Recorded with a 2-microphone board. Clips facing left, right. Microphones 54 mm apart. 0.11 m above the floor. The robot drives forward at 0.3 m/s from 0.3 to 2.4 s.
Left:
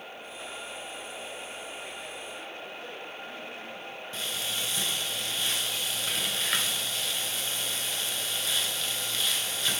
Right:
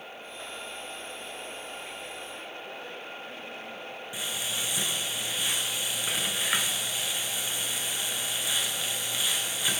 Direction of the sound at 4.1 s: 15° right (ahead or behind).